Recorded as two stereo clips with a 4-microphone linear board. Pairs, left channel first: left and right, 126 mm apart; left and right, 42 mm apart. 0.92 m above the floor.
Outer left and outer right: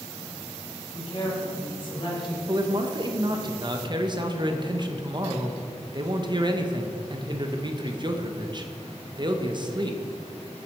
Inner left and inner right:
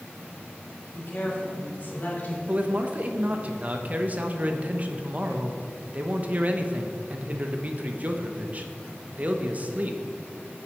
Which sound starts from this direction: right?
A man speaking, at 2.5 s.